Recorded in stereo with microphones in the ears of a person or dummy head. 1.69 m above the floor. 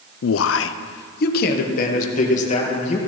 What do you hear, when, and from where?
0.2 s a man speaking: 80° left, 0.5 m; by 3.0 s 40° left (ahead or behind), 2 m